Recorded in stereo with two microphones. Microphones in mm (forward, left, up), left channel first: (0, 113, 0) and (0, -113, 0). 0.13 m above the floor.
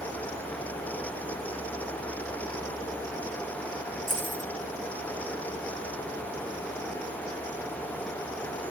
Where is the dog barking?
No dog barking in this recording.